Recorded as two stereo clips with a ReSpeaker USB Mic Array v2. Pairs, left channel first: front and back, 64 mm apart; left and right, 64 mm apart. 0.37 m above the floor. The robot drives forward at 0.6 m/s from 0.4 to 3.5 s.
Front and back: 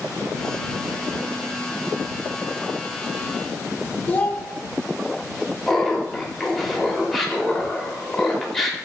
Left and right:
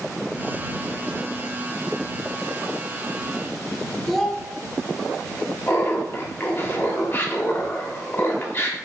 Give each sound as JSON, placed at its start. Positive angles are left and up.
{"t": 4.1, "sound": "a child speaking", "azimuth_deg": 5, "distance_m": 0.7}
{"t": 5.7, "sound": "laughter", "azimuth_deg": 85, "distance_m": 0.9}